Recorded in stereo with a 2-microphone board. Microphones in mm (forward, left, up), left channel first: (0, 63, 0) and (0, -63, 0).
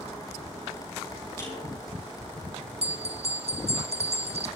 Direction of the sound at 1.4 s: 20° left (ahead or behind).